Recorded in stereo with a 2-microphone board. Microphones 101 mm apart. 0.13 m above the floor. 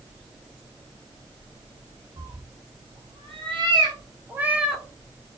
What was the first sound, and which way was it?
A cat meowing, 75° right (ahead or behind).